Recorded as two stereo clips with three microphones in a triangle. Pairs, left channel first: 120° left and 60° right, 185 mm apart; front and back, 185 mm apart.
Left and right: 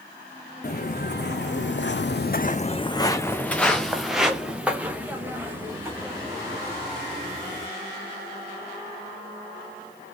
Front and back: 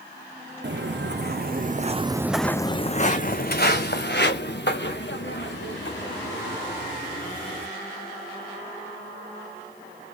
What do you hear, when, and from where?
0.6 s footsteps: 160° left, 1.0 m; by 7.7 s 15° left, 3 m